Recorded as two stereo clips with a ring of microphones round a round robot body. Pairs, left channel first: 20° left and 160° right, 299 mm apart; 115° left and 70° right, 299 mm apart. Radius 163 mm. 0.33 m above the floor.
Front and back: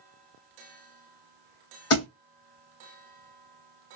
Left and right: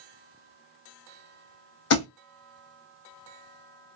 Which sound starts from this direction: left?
A thud, at 1.9 s.